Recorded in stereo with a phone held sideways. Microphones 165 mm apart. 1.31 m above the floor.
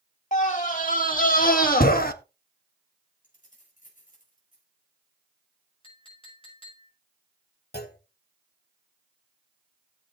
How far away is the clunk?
About 1.6 m.